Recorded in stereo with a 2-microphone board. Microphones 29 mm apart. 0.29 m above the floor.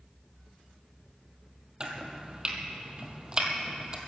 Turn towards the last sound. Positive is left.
turn(degrees=-30)  # may be behind; listen again after turning